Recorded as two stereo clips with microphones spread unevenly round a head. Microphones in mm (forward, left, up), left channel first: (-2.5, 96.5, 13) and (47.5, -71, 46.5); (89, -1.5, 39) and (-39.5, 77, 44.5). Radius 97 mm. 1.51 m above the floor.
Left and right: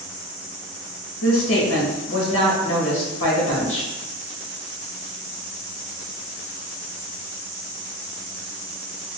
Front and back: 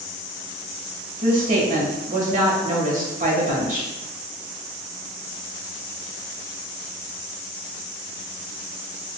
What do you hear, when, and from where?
1.2 s a woman speaking: 110° left, 1.4 m